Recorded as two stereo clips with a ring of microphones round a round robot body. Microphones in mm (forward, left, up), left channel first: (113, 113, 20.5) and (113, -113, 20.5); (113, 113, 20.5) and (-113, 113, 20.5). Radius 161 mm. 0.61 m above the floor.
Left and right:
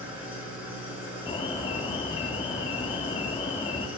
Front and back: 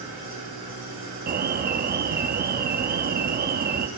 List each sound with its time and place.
0.0 s an engine running: 165° right, 5 m
1.3 s an alarm: 150° left, 0.5 m